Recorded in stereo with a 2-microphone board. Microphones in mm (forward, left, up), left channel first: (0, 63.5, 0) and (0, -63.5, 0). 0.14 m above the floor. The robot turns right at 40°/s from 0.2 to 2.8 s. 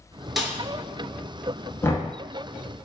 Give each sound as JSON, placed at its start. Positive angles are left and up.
{"t": 0.4, "sound": "a snare drum", "side_deg": 0, "distance_m": 0.6}
{"t": 1.8, "sound": "knocking", "side_deg": 20, "distance_m": 0.9}